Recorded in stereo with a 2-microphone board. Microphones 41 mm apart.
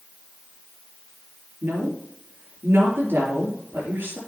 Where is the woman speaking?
60° right (ahead or behind), 4.5 m.